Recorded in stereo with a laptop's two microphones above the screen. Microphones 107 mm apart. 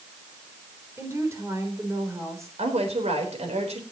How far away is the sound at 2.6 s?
About 4 m.